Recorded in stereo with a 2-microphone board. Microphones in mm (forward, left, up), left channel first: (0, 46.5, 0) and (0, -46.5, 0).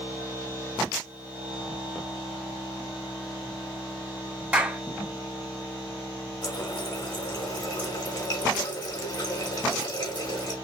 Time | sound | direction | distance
4.5 | a clap | 15° right (ahead or behind) | 1.3 m
6.4 | a running tap | 50° left (ahead or behind) | 1.5 m